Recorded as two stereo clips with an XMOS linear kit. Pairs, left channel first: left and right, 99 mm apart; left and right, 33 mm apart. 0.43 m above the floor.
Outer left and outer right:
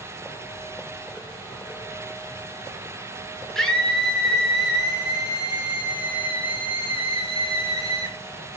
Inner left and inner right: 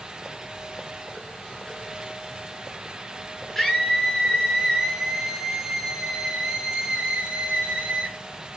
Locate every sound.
3.5 s a scream: 5° left (ahead or behind), 6.5 m; by 8.2 s 30° right (ahead or behind), 6.5 m